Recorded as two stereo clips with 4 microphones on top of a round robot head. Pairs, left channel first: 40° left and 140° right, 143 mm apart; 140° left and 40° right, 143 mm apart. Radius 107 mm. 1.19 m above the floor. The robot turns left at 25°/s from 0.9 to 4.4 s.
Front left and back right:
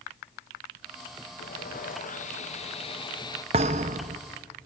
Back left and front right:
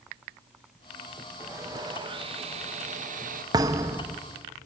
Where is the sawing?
30° left, 1.6 m; by 3.4 s 20° right, 1.6 m.